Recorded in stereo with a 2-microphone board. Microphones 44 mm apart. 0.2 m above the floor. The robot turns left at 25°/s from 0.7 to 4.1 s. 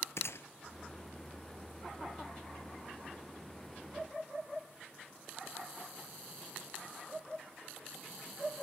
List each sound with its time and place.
0.2 s a gunshot: 80° left, 0.9 m